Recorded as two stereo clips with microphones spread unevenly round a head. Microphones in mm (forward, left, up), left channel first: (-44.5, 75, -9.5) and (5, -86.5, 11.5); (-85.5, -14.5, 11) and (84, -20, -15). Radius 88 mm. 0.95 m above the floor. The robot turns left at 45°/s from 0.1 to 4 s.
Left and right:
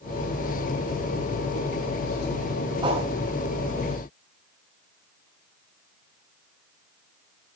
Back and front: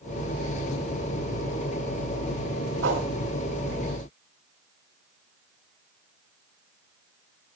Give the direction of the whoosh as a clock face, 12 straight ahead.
12 o'clock.